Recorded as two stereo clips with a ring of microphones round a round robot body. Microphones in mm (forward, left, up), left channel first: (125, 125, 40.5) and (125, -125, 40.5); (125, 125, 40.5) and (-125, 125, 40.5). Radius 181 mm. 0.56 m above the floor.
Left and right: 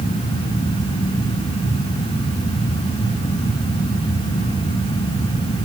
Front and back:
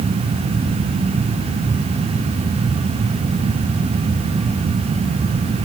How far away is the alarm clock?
No alarm clock in this recording.